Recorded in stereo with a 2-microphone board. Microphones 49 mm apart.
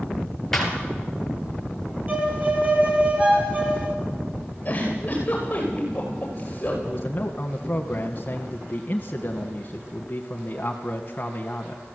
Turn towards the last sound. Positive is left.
turn(degrees=35)  # may be behind; listen again after turning